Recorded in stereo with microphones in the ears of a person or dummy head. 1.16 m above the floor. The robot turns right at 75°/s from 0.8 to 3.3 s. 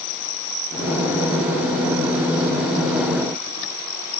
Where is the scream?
No scream in this recording.